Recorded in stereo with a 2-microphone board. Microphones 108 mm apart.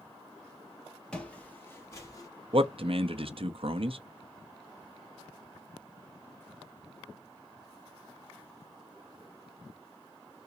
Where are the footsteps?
10° left (ahead or behind), 1.5 m; by 2.3 s 35° left (ahead or behind), 1.7 m.